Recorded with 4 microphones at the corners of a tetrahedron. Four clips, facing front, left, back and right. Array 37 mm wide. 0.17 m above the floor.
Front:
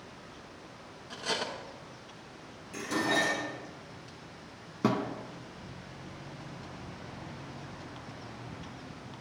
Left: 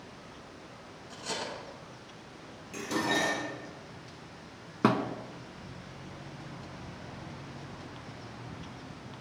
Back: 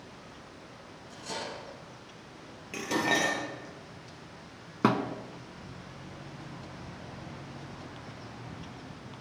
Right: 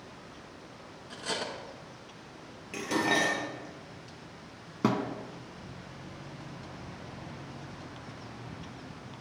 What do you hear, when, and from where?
1.1 s cutlery clinking: 25° right, 1.4 m
2.7 s dishes clattering: 145° right, 2.5 m
4.8 s a thud: 145° left, 0.7 m